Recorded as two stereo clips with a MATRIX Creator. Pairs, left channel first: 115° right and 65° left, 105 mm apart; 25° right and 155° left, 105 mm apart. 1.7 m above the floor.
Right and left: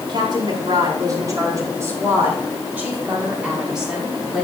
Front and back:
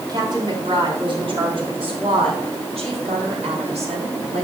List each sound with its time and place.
0.1 s a woman speaking: 110° left, 4.5 m; by 4.5 s 155° left, 5.5 m